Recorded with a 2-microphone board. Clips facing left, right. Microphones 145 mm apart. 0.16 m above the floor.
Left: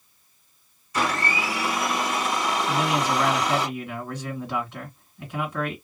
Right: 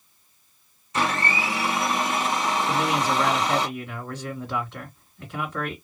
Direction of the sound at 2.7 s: 15° left (ahead or behind).